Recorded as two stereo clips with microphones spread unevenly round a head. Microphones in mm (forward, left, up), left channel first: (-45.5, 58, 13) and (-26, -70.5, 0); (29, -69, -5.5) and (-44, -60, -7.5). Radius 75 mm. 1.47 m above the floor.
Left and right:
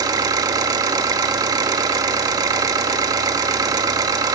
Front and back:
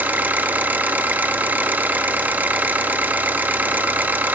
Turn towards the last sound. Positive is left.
turn(degrees=-130)